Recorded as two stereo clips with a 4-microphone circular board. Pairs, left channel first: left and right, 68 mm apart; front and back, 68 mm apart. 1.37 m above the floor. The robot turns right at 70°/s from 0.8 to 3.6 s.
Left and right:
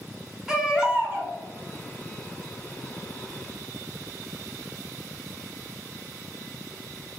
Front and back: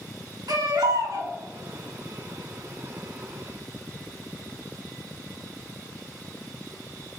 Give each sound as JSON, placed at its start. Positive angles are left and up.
{"t": 0.5, "sound": "a baby crying", "azimuth_deg": -165, "distance_m": 1.0}